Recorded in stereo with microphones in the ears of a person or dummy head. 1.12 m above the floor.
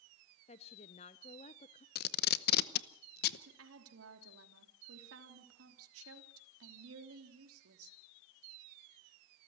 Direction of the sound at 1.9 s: 55° left (ahead or behind).